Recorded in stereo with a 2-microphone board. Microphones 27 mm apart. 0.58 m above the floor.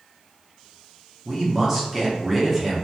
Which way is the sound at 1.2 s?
15° right (ahead or behind).